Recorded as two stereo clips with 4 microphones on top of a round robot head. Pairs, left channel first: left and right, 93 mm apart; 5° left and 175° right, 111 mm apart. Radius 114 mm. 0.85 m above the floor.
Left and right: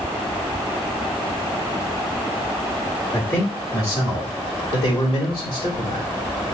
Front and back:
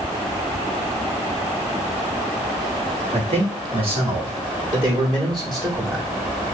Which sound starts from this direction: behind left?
A man speaking, at 3.1 s.